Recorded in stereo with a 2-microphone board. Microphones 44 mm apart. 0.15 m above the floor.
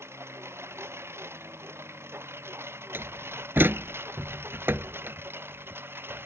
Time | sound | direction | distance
0.0 | a lawn mower | 75° right (ahead or behind) | ?
2.9 | a door slam | 55° right (ahead or behind) | ?